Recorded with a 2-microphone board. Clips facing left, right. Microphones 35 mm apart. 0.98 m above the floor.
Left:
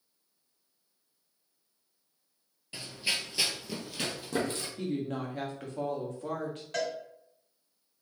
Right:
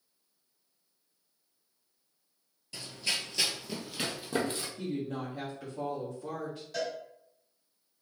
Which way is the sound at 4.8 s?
55° left (ahead or behind).